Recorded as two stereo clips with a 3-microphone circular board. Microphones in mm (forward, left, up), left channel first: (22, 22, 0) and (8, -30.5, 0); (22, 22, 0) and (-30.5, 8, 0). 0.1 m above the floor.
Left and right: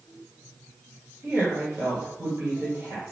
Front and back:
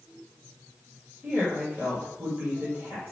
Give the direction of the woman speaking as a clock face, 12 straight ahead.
4 o'clock.